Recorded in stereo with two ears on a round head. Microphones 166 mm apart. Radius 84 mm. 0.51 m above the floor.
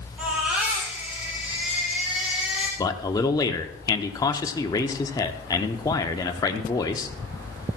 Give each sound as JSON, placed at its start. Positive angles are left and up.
{"t": 0.2, "sound": "a baby crying", "side_deg": -5, "distance_m": 4.5}
{"t": 2.8, "sound": "a man speaking", "side_deg": 20, "distance_m": 0.8}